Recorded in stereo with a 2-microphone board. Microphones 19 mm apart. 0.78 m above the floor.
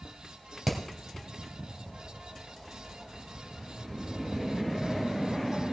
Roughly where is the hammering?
Centre.